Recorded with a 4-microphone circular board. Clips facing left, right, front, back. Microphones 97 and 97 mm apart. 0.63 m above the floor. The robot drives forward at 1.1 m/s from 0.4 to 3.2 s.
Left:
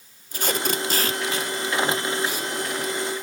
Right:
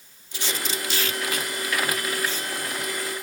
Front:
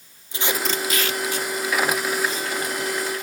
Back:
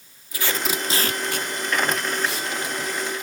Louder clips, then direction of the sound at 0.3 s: Left 5 dB, front 1 dB; 60° left.